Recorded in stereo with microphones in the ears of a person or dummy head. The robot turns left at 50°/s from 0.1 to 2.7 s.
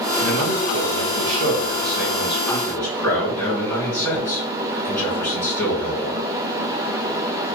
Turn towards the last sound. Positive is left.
turn(degrees=155)